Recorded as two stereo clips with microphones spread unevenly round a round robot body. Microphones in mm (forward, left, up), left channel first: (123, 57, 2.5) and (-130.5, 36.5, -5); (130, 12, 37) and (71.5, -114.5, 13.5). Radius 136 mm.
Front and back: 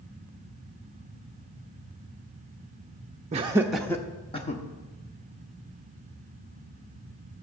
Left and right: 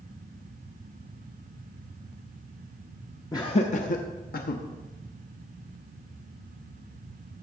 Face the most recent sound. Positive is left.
turn(degrees=70)